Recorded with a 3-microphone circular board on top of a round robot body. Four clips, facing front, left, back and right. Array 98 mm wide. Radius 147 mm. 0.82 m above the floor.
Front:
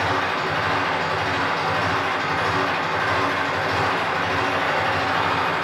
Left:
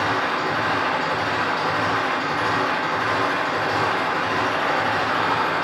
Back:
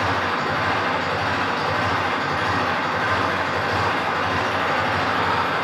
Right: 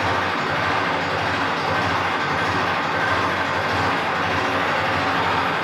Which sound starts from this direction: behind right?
An engine running, at 0.0 s.